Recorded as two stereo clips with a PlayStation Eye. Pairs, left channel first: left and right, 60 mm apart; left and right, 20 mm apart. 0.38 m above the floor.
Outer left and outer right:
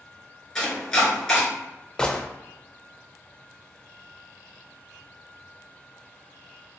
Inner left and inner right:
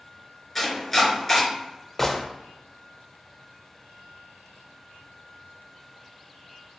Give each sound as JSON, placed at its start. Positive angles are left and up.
{"t": 0.6, "sound": "chopping", "side_deg": 10, "distance_m": 1.8}
{"t": 2.0, "sound": "a gunshot", "side_deg": 15, "distance_m": 0.5}